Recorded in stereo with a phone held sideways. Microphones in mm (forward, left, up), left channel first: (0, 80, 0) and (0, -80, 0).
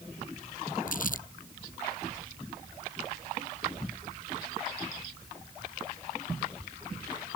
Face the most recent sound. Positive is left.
turn(degrees=60)  # may be behind; listen again after turning